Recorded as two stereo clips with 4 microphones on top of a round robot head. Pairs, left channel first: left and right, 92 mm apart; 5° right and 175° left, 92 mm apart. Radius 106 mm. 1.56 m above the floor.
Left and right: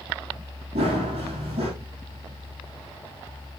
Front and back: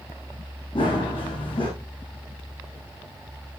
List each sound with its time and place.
0.8 s running footsteps: 50° right, 4 m